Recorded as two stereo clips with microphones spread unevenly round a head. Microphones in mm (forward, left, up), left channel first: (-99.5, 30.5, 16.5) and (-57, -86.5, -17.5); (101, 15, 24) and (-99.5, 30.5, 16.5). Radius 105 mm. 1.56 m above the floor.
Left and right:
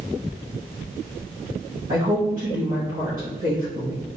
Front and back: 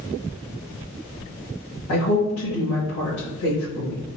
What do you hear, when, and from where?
1.9 s a woman speaking: 15° right, 1.5 m